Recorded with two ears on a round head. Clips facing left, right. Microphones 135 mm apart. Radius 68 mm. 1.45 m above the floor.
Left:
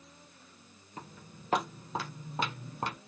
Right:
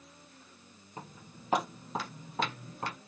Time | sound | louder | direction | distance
1.0 | footsteps | even | 25° right (ahead or behind) | 1.6 m